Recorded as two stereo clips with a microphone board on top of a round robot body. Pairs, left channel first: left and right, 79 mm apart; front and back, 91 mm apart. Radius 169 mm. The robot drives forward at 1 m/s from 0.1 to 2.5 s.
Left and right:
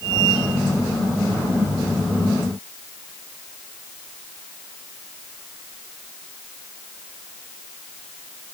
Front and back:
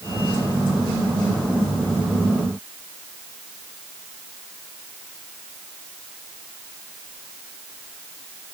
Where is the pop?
I don't hear a pop.